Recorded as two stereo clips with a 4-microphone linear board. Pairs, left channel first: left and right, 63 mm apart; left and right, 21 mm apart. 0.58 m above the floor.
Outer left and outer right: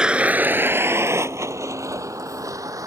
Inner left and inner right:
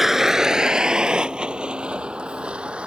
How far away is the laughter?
No laughter in this recording.